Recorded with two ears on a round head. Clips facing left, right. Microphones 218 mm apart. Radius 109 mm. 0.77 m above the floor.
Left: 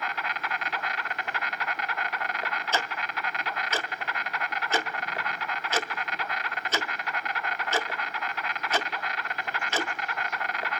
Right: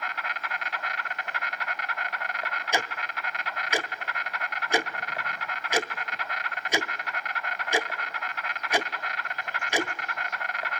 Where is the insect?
65° left (ahead or behind), 1.1 m.